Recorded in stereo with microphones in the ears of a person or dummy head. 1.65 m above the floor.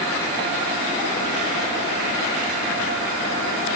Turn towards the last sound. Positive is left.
No sound to turn to.